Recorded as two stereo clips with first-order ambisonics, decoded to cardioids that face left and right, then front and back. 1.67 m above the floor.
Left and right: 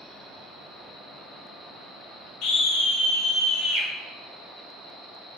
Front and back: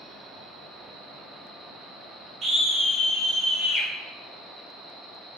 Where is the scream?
115° left, 1.1 m; by 3.9 s 65° left, 1.6 m.